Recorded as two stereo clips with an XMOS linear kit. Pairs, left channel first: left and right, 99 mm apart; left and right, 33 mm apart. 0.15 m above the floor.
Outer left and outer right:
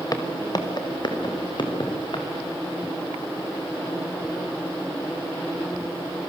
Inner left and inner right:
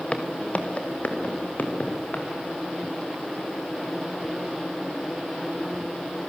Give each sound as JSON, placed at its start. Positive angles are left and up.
{"t": 0.1, "sound": "footsteps", "side_deg": 40, "distance_m": 3.0}